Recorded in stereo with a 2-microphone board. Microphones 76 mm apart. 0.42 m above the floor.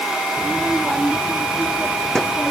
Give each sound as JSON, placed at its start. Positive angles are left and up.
{"t": 0.4, "sound": "a child speaking", "side_deg": 0}